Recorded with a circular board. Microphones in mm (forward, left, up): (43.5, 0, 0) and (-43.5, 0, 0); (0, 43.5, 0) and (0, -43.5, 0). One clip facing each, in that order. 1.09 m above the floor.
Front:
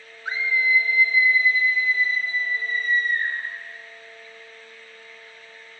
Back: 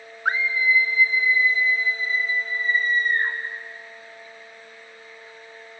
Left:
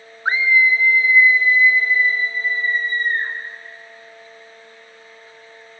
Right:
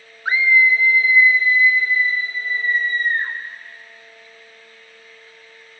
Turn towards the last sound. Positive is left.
turn(degrees=-155)